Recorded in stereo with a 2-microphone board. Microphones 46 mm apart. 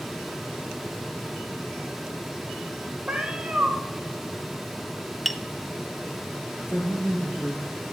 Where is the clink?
I don't hear a clink.